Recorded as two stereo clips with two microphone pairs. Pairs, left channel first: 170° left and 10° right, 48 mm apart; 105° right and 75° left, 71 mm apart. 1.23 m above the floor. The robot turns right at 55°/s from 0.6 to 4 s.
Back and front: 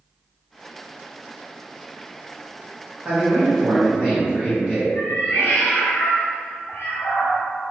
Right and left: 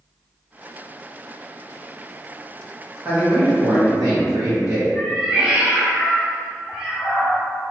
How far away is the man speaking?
About 1.1 m.